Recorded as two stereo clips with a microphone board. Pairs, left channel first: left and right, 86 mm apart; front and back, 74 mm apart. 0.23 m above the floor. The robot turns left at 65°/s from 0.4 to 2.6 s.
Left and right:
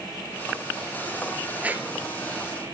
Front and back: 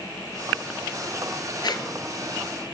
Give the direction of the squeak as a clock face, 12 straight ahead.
12 o'clock.